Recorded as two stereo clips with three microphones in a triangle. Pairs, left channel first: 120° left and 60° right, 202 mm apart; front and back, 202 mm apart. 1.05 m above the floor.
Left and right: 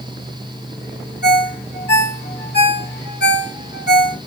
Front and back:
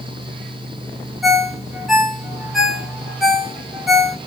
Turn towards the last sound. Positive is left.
turn(degrees=90)